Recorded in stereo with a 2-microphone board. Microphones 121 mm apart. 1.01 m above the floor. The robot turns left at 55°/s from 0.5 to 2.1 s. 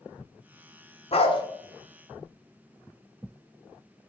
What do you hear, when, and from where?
1.1 s a dog barking: 55° left (ahead or behind), 1.2 m; by 1.4 s 40° left (ahead or behind), 1.2 m